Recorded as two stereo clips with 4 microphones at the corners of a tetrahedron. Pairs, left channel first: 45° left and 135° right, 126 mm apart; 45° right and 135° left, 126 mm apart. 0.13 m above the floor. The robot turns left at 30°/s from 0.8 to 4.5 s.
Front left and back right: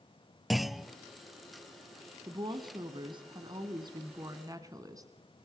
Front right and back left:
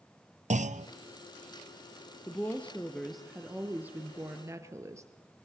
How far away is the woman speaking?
About 1.7 m.